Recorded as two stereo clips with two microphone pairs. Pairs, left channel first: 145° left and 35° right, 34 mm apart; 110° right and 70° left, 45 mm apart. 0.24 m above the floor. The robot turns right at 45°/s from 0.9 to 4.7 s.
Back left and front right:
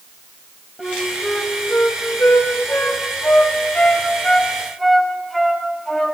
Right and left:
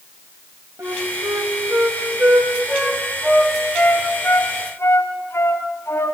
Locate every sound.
0.8 s a flute: 55° left, 4 m; by 6.2 s 135° right, 4 m